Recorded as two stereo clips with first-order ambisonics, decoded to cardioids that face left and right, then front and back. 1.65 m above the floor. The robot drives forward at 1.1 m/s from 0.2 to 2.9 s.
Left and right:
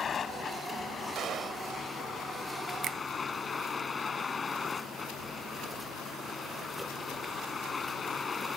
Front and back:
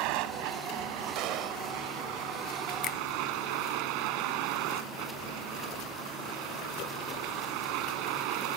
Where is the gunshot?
145° right; by 1.6 s 150° right.